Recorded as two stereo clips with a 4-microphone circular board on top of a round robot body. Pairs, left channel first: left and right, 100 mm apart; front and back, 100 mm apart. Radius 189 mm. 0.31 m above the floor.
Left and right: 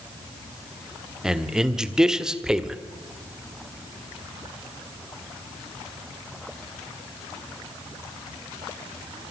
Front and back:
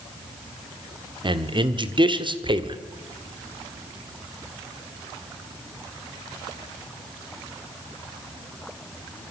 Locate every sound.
1.2 s a man speaking: 175° right, 2 m